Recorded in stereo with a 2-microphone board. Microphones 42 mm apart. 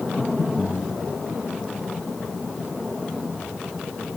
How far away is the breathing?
About 5.5 m.